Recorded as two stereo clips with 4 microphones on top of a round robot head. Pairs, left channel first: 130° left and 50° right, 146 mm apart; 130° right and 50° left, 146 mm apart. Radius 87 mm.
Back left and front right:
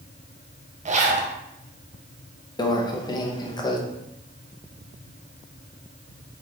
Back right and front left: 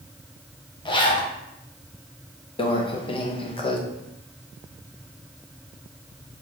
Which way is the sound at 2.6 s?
175° right.